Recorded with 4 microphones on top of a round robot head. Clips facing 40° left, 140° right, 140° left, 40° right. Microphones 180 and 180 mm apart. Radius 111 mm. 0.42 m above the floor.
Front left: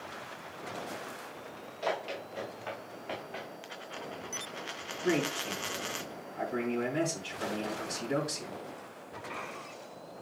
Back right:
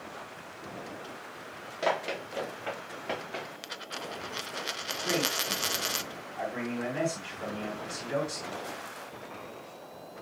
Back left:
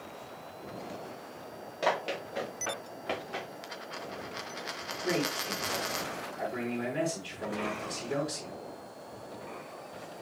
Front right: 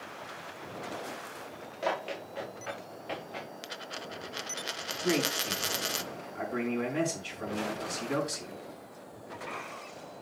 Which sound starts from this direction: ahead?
A man speaking, at 5.0 s.